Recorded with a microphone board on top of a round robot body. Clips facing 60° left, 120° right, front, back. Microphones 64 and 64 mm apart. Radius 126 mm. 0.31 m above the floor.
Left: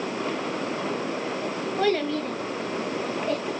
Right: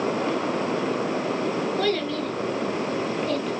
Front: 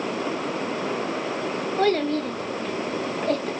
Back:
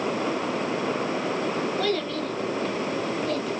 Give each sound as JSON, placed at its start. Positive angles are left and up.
{"t": 1.8, "sound": "a child speaking", "azimuth_deg": 0, "distance_m": 0.6}